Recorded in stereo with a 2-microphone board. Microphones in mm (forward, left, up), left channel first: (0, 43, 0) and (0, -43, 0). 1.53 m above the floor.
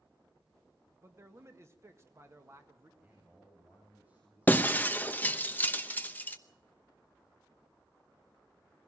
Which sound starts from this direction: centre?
A man speaking, at 3.0 s.